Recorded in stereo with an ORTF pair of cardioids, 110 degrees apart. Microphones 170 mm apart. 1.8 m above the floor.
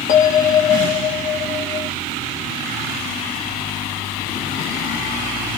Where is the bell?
50° left, 1.2 m.